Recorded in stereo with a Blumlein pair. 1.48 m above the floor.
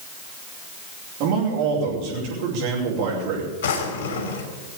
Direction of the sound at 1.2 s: 45° right.